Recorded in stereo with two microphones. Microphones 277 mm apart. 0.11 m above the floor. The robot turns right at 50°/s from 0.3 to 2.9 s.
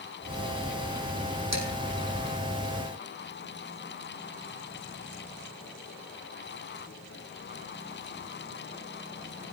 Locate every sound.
1.5 s dishes clattering: 70° right (ahead or behind), 3.5 m; by 1.7 s 65° right (ahead or behind), 3.5 m